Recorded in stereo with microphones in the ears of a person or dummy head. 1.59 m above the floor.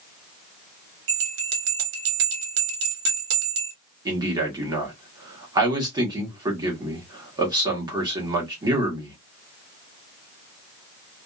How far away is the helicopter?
No helicopter in this recording.